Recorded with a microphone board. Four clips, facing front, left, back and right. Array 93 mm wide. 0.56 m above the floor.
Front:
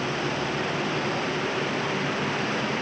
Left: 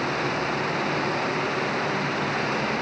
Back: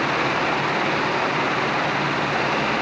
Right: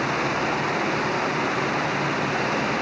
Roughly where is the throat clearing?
I don't hear throat clearing.